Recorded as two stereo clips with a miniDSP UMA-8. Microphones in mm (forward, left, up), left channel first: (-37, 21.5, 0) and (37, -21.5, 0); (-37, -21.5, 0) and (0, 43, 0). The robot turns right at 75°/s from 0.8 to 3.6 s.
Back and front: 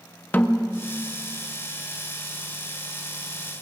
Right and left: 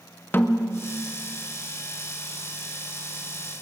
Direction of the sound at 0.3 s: 160° right.